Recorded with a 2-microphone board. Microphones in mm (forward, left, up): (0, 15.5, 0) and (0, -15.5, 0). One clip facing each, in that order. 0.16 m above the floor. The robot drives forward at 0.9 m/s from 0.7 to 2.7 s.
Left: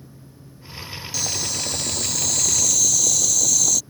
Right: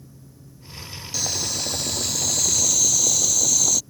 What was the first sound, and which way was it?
Boiling, 5° right (ahead or behind).